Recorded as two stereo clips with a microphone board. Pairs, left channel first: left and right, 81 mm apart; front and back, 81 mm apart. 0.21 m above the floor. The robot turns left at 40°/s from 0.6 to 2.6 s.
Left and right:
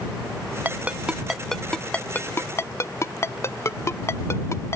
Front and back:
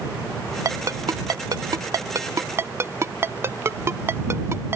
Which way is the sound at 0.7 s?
150° right.